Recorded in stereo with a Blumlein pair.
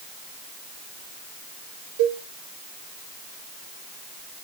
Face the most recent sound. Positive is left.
turn(degrees=-55)